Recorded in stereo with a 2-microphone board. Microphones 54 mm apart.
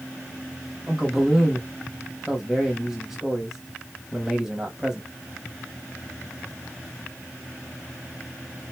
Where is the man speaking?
10° right (ahead or behind), 1.0 m.